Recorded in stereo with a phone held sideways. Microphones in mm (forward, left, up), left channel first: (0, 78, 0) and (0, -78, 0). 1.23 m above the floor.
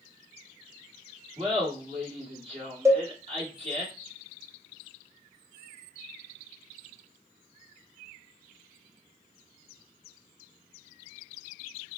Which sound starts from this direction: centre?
A cowbell, at 2.9 s.